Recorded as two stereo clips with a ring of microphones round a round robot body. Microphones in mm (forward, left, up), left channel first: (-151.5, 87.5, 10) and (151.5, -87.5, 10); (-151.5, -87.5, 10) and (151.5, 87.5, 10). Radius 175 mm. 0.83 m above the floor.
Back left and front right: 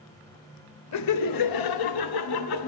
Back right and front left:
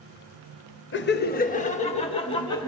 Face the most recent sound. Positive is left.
turn(degrees=130)